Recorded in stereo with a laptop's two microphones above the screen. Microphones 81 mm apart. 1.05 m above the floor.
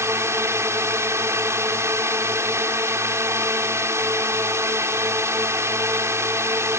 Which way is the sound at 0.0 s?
35° right (ahead or behind).